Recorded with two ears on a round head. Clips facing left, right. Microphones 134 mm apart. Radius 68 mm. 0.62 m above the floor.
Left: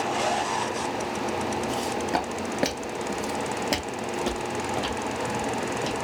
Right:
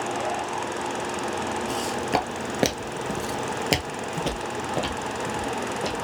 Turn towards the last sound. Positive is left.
turn(degrees=-15)  # may be behind; listen again after turning